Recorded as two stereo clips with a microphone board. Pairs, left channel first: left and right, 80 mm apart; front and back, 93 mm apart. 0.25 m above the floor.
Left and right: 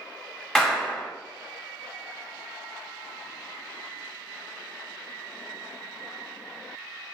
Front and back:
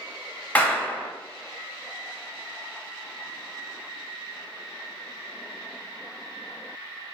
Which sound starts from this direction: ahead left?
A clap, at 0.6 s.